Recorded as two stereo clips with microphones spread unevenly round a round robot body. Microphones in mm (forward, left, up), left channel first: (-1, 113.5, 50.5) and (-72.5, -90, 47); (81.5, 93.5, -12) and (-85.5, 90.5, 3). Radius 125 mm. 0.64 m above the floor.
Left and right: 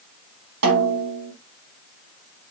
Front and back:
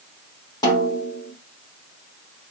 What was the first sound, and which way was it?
A snare drum, 75° right.